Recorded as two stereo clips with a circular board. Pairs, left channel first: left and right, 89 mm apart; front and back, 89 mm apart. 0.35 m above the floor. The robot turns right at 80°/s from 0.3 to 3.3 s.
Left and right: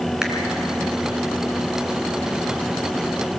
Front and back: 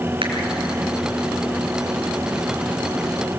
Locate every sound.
0.2 s a finger snap: 170° right, 3 m